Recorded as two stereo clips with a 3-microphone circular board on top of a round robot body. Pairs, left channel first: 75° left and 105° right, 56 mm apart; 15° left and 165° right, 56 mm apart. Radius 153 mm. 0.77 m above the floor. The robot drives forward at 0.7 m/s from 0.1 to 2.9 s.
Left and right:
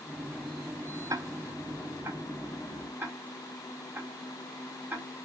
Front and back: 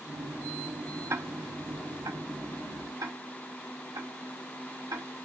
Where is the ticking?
120° right, 0.7 m; by 5.1 s 160° right, 1.7 m.